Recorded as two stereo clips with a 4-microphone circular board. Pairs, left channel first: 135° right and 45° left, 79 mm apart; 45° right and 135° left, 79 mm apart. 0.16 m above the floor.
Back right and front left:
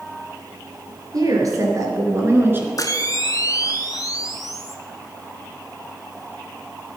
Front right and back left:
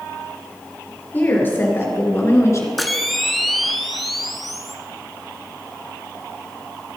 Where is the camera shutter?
135° right, 1.0 m.